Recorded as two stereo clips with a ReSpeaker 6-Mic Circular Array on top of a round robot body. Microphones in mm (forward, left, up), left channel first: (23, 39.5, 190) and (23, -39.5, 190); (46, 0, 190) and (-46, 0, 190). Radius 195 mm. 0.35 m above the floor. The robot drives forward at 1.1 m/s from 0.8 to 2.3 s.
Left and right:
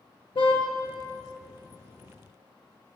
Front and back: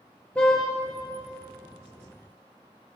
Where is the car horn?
80° left, 4 m.